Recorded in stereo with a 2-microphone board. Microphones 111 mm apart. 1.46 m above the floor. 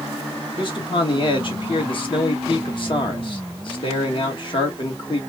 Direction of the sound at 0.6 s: 50° left (ahead or behind).